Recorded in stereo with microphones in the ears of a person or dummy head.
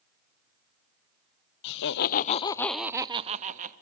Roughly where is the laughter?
Left.